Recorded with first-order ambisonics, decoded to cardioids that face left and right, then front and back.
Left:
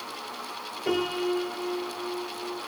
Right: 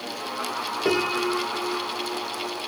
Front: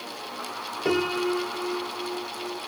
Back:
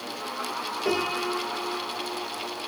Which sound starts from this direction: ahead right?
A piano, at 0.8 s.